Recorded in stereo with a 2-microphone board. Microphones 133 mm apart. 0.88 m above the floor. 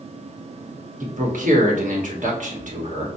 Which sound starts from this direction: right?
A man speaking, at 1.0 s.